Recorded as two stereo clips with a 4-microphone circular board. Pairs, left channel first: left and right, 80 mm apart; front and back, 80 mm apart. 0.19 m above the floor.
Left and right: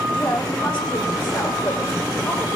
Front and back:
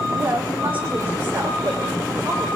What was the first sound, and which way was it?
A woman speaking, 115° left.